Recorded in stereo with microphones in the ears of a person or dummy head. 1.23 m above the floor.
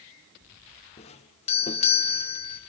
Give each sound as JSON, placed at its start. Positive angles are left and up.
{"t": 1.0, "sound": "a doorbell", "side_deg": 30, "distance_m": 0.7}